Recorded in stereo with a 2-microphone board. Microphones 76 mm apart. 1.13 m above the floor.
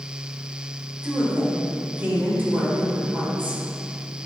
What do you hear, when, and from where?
1.0 s a woman speaking: 25° right (ahead or behind), 3.5 m